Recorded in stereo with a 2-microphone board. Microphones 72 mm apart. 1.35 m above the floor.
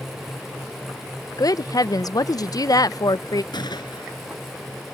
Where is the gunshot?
85° left.